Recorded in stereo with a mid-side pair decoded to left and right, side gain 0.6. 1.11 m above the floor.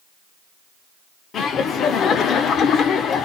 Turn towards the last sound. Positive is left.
turn(degrees=50)